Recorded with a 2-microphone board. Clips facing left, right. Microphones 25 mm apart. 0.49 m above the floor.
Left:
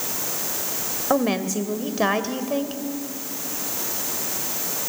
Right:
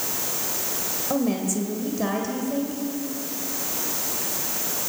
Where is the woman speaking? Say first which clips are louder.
Left 3 dB; 45° left (ahead or behind), 2 m.